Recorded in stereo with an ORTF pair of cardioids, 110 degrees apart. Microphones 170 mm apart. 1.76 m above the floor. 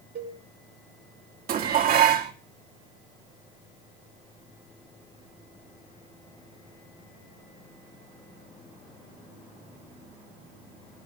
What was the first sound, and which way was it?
A cowbell, 65° right.